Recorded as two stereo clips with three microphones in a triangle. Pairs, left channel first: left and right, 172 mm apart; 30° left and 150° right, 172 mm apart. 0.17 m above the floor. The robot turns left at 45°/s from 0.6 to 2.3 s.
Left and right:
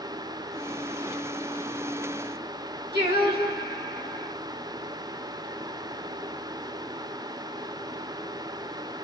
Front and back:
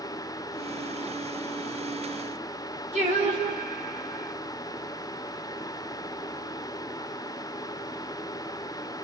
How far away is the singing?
About 1.9 m.